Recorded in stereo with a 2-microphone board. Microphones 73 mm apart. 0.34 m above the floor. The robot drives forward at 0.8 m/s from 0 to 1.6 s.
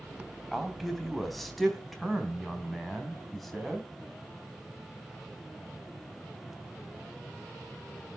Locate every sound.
0.5 s a man speaking: centre (ahead or behind), 2.5 m